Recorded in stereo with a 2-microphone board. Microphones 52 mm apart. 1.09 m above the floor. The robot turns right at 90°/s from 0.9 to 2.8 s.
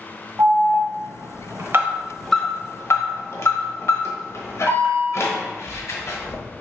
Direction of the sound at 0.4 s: 65° right (ahead or behind).